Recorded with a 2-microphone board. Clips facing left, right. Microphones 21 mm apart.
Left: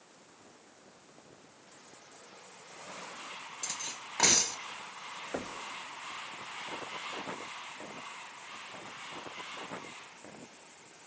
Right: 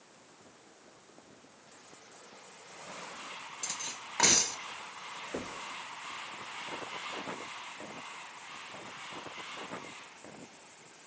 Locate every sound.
3.6 s cutlery clinking: 20° right (ahead or behind), 1.2 m
5.3 s knocking: 45° left (ahead or behind), 1.8 m